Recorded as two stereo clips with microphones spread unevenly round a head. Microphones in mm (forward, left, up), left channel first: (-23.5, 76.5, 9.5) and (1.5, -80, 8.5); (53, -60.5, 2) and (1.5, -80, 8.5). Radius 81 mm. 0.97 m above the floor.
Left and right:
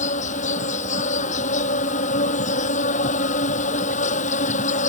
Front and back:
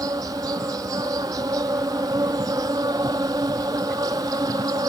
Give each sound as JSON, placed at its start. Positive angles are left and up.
{"t": 0.0, "sound": "an insect", "azimuth_deg": 145}